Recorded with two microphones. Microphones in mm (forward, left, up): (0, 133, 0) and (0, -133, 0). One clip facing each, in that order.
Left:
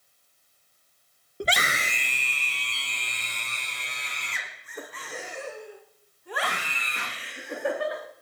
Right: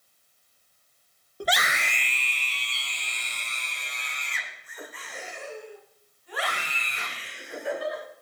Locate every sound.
1.4 s a scream: 25° left (ahead or behind), 1.1 m; by 8.0 s 80° left, 8.5 m